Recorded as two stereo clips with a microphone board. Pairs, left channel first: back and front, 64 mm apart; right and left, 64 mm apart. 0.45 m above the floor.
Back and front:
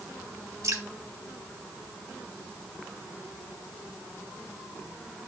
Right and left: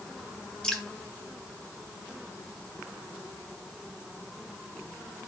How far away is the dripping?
About 1.7 m.